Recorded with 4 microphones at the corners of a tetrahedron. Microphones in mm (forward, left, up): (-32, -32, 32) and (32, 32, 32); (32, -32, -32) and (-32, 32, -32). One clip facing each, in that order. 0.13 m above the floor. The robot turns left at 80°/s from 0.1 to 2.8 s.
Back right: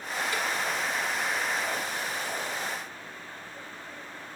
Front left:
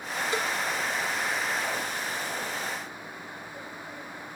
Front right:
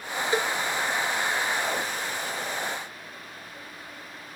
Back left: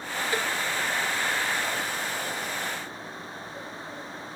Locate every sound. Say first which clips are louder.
0.3 s a cowbell: front left 3 dB, front right 4 dB; 5° left; by 0.5 s 10° right